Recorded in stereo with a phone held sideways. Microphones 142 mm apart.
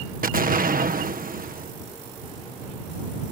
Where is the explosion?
85° right.